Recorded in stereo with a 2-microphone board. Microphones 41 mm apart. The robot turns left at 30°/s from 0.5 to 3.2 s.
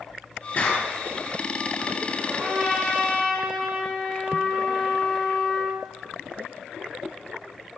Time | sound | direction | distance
0.6 | a clap | 30° left (ahead or behind) | 6 m
2.3 | a trumpet | 15° right (ahead or behind) | 6 m